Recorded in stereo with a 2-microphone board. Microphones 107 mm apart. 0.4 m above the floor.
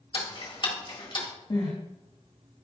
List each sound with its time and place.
0.1 s ticking: 50° left (ahead or behind), 1.4 m
1.5 s crying: 50° left (ahead or behind), 3 m